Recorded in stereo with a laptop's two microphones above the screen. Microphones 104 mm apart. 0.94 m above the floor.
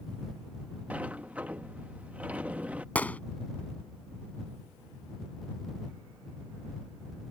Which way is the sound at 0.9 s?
15° right (ahead or behind).